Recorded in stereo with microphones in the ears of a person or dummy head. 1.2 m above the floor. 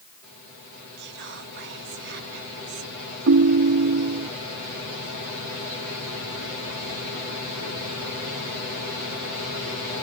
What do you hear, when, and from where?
1.0 s whispering: 60° right (ahead or behind)
3.3 s a ringtone: 55° right (ahead or behind)